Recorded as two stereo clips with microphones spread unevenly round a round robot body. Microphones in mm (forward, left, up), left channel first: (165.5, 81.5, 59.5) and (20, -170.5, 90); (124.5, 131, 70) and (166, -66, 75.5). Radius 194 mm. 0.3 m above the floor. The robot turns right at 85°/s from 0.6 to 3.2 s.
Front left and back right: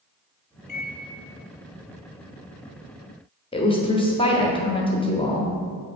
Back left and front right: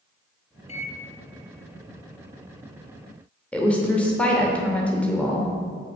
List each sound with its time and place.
0.7 s a microwave: 65° left, 1.0 m; by 1.0 s 90° left, 1.0 m
3.5 s a woman speaking: 30° left, 1.0 m